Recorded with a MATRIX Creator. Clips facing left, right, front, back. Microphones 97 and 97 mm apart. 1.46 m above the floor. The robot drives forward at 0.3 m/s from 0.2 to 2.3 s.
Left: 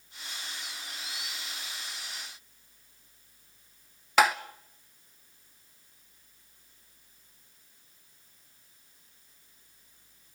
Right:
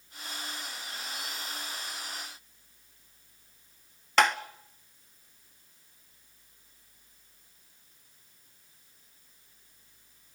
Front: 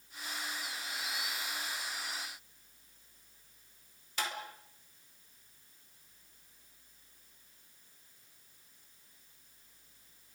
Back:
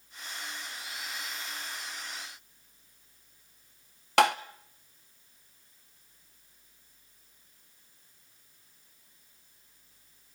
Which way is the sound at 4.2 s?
175° left.